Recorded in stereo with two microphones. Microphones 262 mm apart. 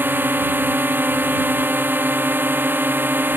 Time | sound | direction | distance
0.0 | a drone | 10° right (ahead or behind) | ?